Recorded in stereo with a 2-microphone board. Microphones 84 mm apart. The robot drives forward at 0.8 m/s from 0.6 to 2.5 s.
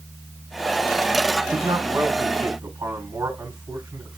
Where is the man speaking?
50° right (ahead or behind), 2.5 m; by 4.2 s 40° right (ahead or behind), 3 m.